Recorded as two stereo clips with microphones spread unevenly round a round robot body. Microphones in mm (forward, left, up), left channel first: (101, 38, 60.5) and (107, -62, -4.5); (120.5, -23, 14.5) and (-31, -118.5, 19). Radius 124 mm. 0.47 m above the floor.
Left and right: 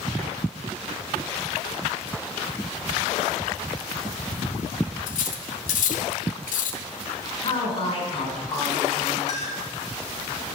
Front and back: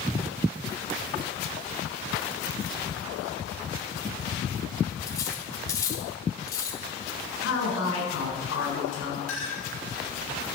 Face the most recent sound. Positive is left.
turn(degrees=70)